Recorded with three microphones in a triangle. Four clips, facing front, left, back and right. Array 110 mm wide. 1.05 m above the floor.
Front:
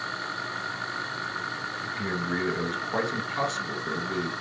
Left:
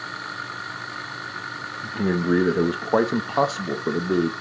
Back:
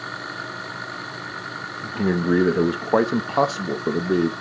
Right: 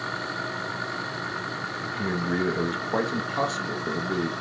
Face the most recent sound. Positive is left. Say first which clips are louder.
# left 7 dB, back 11 dB
turn(degrees=150)